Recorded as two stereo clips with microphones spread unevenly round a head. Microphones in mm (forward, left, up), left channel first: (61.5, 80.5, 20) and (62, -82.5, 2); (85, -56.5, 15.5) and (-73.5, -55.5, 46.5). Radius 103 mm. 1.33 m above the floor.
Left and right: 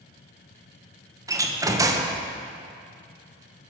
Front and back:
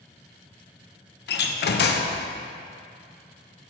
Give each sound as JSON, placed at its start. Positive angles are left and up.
{"t": 1.3, "sound": "a door slam", "azimuth_deg": -20, "distance_m": 0.8}